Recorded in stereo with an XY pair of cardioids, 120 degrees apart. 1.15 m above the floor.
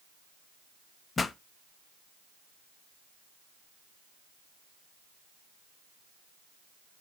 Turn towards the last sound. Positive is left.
turn(degrees=30)